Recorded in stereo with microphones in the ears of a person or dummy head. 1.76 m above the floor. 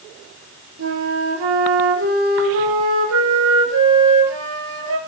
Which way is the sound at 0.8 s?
70° right (ahead or behind).